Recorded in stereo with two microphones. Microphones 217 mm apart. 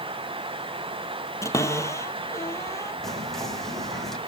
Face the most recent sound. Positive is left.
turn(degrees=0)  # may be behind; listen again after turning